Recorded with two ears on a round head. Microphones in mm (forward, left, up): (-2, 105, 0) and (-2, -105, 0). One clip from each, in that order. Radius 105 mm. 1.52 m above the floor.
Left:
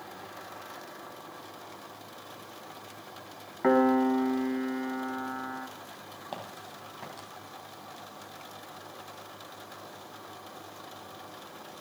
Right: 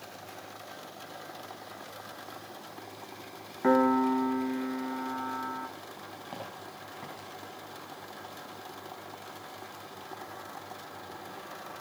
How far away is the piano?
About 1.2 m.